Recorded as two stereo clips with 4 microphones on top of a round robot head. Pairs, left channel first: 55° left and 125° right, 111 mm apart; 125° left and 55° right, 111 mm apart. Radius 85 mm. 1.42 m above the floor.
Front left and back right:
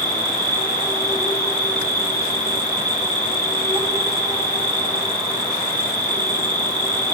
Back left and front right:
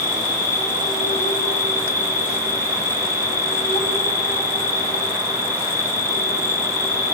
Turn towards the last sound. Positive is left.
turn(degrees=-170)